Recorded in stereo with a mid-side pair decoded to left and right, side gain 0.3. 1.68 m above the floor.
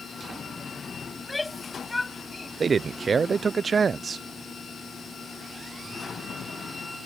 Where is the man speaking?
65° right.